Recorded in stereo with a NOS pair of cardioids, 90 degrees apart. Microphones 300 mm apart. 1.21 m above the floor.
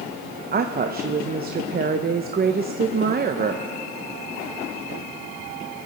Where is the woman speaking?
30° right, 0.8 m.